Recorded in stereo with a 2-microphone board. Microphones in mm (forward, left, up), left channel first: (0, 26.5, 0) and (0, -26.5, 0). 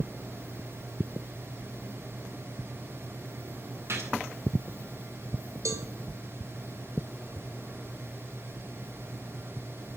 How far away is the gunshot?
About 8.5 m.